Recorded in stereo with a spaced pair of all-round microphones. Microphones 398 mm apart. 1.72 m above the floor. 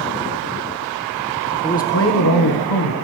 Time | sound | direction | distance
1.6 | a man speaking | 10° left (ahead or behind) | 1.0 m